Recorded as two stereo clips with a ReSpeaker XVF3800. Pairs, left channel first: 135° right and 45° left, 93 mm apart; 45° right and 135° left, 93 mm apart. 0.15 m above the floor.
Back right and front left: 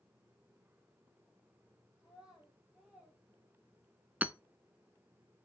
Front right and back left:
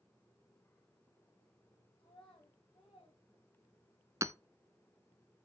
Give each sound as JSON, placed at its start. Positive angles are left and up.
{"t": 2.0, "sound": "a child speaking", "azimuth_deg": -70, "distance_m": 5.0}
{"t": 4.2, "sound": "hammering", "azimuth_deg": 105, "distance_m": 0.5}